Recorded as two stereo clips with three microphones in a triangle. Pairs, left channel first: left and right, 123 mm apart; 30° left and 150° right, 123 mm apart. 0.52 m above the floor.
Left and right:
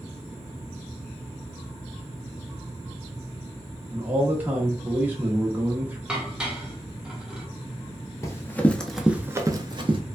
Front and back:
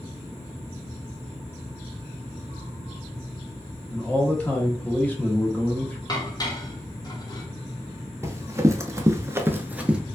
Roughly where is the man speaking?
Ahead right.